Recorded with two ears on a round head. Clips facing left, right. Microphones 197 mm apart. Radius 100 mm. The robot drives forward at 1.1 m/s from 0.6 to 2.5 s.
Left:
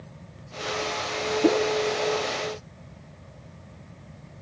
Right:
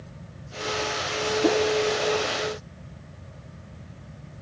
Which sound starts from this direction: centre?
A whoosh, at 1.4 s.